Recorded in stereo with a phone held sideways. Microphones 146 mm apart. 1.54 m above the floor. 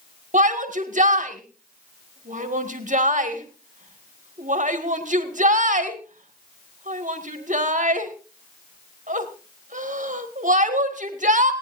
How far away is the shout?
About 1.9 m.